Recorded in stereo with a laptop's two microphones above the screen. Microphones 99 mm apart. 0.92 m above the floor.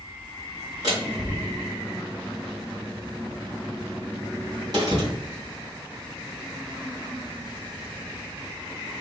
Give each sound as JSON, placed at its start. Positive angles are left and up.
{"t": 0.8, "sound": "a door slam", "side_deg": -45, "distance_m": 3.5}